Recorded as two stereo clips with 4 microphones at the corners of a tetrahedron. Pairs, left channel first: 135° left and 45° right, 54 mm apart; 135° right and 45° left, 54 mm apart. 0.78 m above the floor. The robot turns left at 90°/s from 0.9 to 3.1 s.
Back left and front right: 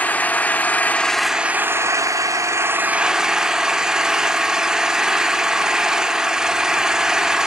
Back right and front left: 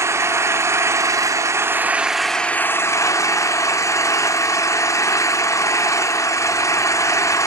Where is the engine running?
75° left, 0.7 m; by 7.5 s 125° right, 0.7 m.